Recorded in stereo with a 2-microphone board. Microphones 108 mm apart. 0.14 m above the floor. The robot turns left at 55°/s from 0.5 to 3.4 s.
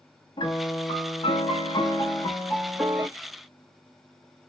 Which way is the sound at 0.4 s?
125° left.